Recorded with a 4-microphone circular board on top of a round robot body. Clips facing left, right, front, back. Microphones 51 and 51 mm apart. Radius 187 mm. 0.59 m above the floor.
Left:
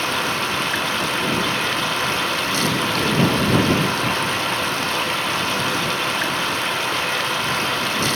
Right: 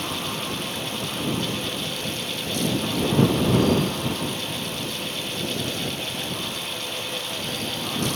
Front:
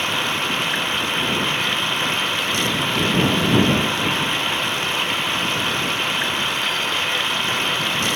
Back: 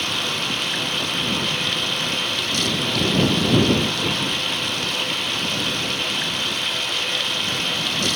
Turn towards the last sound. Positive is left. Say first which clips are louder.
# left 8 dB, front 3 dB
turn(degrees=65)